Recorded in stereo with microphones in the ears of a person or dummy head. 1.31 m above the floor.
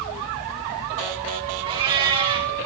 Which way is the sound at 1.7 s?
25° right (ahead or behind).